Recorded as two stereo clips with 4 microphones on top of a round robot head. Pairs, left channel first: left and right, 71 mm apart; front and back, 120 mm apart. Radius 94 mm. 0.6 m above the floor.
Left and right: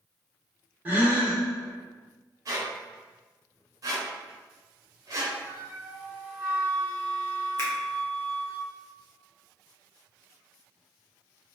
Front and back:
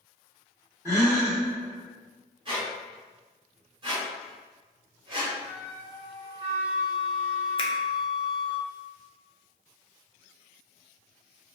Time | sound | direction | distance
0.8 | a gasp | 140° right | 1.0 m
2.5 | a squeak | 130° right | 0.9 m
5.4 | a flute | 140° right | 1.1 m
7.6 | a finger snap | 40° left | 0.6 m